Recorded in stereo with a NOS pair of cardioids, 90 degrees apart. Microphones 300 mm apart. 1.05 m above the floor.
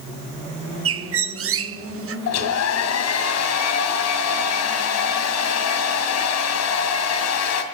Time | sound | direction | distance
0.8 | a bird | 50° right | 0.8 m
2.3 | a hair dryer | 65° left | 2.5 m